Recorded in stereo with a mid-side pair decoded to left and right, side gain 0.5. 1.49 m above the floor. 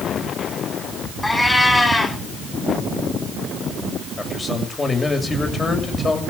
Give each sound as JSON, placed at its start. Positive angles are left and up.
{"t": 1.2, "sound": "a cat meowing", "azimuth_deg": 15, "distance_m": 7.0}
{"t": 4.2, "sound": "a man speaking", "azimuth_deg": 30, "distance_m": 7.0}